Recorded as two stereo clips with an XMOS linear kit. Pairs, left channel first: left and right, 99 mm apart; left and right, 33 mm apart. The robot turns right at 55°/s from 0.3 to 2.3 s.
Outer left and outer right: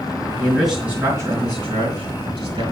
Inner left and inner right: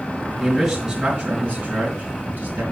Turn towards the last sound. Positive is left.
turn(degrees=-75)  # may be behind; listen again after turning